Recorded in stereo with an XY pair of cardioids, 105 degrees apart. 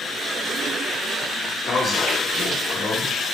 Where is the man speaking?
55° left, 1.5 m.